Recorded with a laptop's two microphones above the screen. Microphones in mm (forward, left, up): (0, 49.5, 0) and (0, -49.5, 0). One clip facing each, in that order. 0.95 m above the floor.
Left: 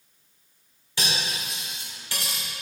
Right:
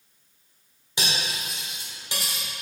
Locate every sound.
1.0 s cutlery clinking: 20° right (ahead or behind), 1.9 m